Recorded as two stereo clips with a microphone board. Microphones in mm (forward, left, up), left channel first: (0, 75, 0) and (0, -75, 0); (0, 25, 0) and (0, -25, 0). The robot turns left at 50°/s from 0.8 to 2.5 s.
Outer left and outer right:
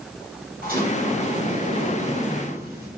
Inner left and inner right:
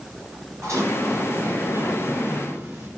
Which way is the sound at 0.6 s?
75° right.